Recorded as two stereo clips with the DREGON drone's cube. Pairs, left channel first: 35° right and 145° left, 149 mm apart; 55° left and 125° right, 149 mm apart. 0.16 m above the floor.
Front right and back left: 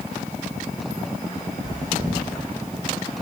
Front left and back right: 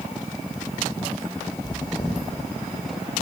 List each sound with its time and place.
1.6 s chewing: 120° left, 9 m